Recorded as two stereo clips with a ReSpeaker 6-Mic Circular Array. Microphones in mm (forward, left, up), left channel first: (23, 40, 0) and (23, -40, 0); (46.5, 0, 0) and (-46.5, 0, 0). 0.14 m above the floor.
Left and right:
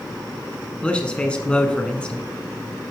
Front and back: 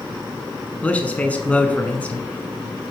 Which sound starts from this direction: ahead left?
A man speaking, at 0.8 s.